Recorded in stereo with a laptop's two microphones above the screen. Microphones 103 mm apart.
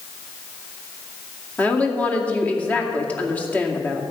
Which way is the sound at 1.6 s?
15° left (ahead or behind).